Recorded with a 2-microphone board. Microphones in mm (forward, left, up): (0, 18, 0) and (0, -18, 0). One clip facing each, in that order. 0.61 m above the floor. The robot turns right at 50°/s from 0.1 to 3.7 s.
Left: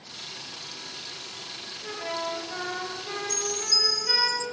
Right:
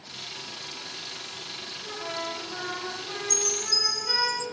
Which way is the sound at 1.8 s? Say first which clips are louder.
Left 2 dB; 70° left.